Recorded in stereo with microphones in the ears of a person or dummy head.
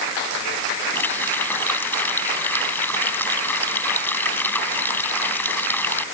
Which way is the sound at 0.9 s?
5° left (ahead or behind).